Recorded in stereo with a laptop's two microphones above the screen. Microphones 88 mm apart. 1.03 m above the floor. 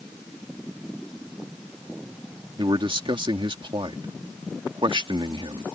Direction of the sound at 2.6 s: 70° right (ahead or behind).